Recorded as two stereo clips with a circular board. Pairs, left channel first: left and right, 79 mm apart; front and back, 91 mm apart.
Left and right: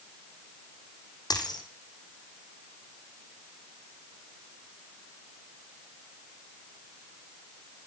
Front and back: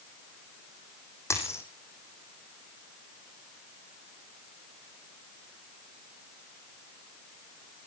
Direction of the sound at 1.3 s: 60° left.